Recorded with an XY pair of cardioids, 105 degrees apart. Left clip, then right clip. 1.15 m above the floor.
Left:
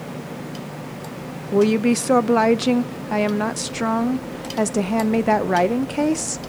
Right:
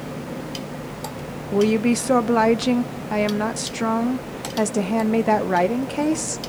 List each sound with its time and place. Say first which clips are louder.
1.5 s a woman speaking: left 2 dB; 15° left, 0.7 m